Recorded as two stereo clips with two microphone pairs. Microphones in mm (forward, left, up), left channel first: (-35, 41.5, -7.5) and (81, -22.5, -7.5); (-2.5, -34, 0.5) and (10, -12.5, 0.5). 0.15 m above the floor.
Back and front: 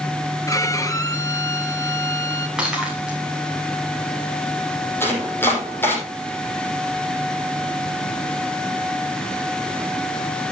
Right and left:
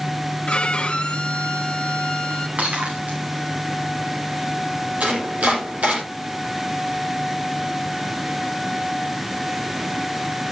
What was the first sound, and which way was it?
A violin, 150° right.